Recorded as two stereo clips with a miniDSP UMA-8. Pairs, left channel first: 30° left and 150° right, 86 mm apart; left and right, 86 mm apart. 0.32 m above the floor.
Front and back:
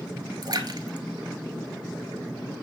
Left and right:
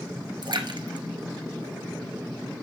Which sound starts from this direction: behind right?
A splash, at 0.4 s.